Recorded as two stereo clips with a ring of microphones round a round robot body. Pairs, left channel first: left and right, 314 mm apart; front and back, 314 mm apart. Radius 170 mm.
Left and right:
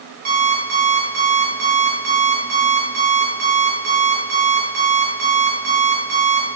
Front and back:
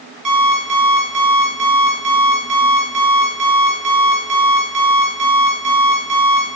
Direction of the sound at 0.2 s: 155° right.